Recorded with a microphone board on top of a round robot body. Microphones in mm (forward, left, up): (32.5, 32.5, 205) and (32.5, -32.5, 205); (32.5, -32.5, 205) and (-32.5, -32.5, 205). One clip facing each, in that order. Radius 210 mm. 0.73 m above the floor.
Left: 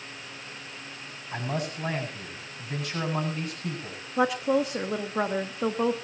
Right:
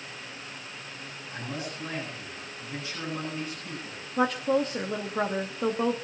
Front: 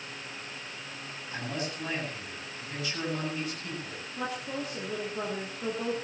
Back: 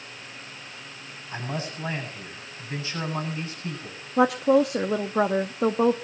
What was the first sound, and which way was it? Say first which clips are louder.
A man speaking: left 5 dB, back 3 dB; 120° left.